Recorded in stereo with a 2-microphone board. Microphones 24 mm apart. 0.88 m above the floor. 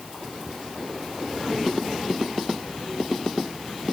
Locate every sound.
Only background noise.